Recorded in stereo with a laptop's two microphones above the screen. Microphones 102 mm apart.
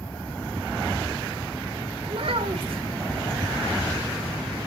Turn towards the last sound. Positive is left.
turn(degrees=-65)  # may be behind; listen again after turning